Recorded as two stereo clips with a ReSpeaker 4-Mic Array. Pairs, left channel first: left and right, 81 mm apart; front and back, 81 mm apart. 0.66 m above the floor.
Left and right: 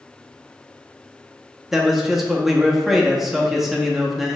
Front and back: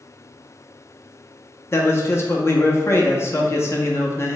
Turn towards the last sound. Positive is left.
turn(degrees=-5)